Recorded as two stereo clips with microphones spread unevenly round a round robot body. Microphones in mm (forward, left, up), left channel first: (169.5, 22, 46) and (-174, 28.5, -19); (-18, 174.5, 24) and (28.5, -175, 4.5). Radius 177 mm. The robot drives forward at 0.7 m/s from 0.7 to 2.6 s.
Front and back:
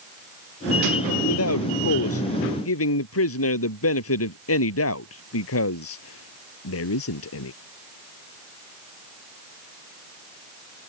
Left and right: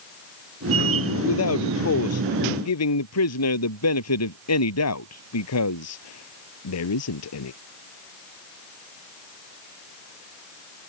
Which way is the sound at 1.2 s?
45° left.